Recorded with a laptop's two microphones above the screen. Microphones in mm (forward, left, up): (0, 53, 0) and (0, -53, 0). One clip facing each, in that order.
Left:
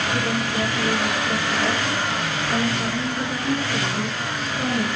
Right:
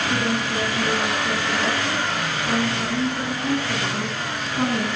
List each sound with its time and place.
0.1 s a woman speaking: 50° right (ahead or behind), 8 m